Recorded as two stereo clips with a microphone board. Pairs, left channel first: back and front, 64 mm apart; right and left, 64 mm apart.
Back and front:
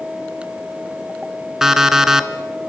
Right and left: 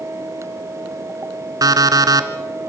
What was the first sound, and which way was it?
An alarm clock, 80° left.